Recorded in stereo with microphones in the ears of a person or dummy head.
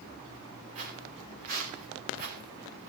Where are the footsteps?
40° right (ahead or behind), 6.5 m; by 2.9 s 55° right (ahead or behind), 4 m.